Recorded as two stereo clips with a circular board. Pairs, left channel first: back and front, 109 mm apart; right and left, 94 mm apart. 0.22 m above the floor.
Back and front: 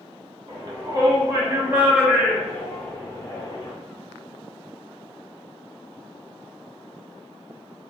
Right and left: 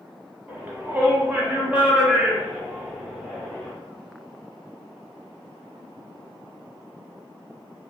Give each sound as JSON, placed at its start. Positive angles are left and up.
{"t": 0.5, "sound": "a shout", "azimuth_deg": 25, "distance_m": 1.4}